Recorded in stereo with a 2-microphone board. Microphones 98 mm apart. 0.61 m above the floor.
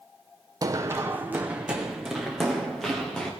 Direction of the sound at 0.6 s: 35° right (ahead or behind).